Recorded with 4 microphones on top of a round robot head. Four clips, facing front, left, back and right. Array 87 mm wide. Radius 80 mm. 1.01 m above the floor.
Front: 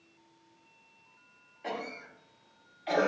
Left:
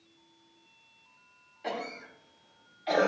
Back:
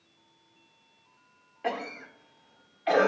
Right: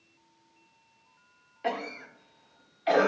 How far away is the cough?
About 1.1 m.